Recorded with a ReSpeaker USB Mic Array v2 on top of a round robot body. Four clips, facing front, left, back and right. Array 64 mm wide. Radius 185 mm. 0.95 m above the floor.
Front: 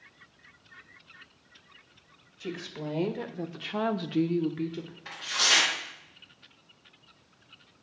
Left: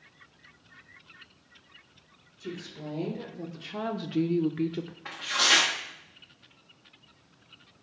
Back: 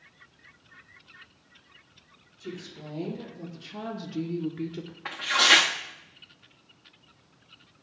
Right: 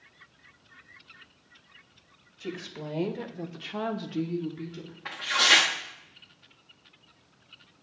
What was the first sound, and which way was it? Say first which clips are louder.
A woman speaking: right 2 dB, front 4 dB; 45° right.